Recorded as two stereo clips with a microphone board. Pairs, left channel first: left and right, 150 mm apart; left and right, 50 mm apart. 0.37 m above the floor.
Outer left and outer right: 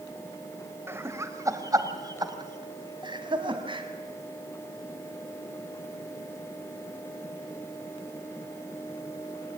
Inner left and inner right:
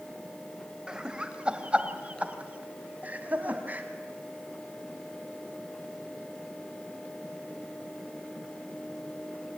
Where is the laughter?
15° right (ahead or behind), 1.9 m; by 3.9 s 35° right (ahead or behind), 3.5 m.